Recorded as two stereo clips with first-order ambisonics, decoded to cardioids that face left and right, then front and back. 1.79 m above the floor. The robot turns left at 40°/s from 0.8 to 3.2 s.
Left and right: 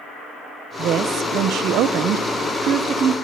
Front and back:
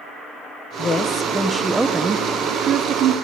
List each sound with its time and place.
0.8 s a woman speaking: 60° right, 0.9 m; by 3.1 s 155° right, 0.9 m